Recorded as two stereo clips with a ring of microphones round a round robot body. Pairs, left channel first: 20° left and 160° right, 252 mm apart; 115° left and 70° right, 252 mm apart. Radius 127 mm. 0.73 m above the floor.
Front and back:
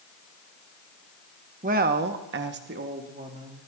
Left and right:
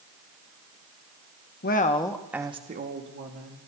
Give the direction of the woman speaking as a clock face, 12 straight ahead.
7 o'clock.